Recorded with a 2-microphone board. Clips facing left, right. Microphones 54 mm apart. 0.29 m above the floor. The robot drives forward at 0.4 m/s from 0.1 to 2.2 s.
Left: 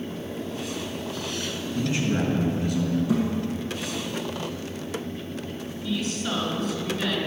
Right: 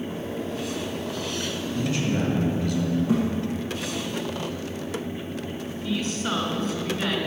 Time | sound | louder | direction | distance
1.8 | a man speaking | left 1 dB | 30° left (ahead or behind) | 3 m
3.1 | a thud | right 1 dB | 35° right (ahead or behind) | 4.5 m
5.8 | a woman speaking | right 1 dB | 40° right (ahead or behind) | 2.5 m